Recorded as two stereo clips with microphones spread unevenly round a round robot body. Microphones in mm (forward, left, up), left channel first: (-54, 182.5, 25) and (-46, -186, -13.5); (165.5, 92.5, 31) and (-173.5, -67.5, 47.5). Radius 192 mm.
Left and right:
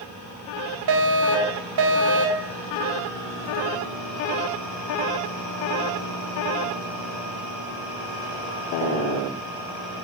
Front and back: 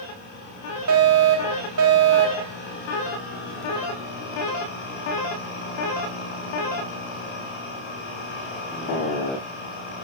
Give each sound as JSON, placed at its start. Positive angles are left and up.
{"t": 0.9, "sound": "a fire alarm", "azimuth_deg": -110, "distance_m": 4.5}